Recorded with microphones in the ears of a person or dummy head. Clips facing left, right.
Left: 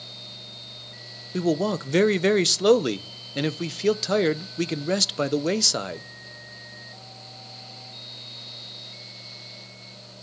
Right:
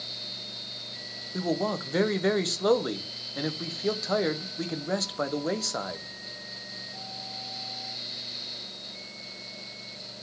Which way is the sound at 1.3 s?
40° left (ahead or behind).